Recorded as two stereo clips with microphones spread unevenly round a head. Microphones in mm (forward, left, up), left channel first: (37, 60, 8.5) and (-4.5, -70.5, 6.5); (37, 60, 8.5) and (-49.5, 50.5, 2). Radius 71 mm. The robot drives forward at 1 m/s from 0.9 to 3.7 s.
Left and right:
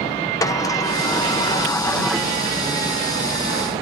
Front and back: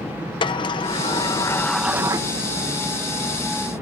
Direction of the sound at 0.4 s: 10° left.